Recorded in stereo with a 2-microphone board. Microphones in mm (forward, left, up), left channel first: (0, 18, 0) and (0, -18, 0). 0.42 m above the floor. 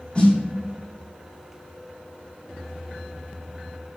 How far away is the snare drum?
About 1.7 m.